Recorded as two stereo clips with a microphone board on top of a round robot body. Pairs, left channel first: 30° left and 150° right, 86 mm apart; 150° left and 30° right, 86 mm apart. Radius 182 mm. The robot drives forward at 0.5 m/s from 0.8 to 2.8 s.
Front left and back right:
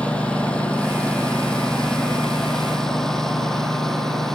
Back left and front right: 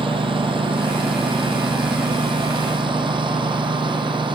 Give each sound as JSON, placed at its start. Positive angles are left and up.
{"t": 0.0, "sound": "a lawn mower", "azimuth_deg": -50}